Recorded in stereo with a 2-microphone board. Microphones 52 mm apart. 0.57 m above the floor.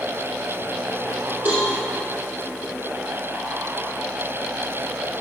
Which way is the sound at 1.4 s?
30° right (ahead or behind).